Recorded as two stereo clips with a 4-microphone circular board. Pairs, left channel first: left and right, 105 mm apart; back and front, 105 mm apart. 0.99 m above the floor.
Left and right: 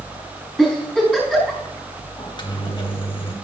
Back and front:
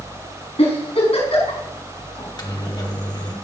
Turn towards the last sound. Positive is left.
turn(degrees=130)